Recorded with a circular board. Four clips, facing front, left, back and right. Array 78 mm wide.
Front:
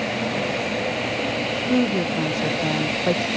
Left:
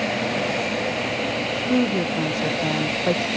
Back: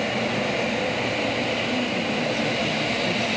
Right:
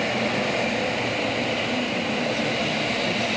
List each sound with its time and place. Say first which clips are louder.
1.7 s a woman speaking: left 5 dB, front 4 dB; 45° left